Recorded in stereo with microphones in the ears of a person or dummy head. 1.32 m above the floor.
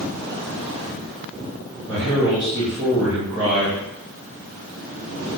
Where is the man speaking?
20° right (ahead or behind), 1.9 m.